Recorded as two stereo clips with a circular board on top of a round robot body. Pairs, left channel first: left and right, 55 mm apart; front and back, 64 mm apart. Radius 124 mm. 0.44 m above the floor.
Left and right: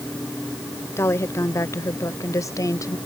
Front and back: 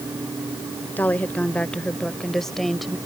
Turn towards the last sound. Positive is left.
turn(degrees=90)